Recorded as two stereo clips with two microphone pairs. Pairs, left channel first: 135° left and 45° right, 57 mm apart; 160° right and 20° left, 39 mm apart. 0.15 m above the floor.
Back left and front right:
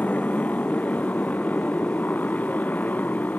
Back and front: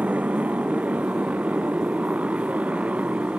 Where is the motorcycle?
70° left; by 3.4 s 75° left.